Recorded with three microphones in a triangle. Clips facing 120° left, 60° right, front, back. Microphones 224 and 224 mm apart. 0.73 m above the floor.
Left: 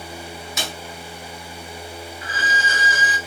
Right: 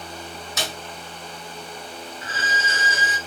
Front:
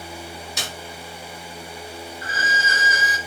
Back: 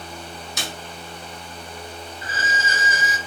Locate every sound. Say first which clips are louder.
0.6 s a snare drum: right 1 dB, back 3 dB; 10° right, 1.0 m
2.2 s a violin: left 2 dB, back 1 dB; 125° right, 0.6 m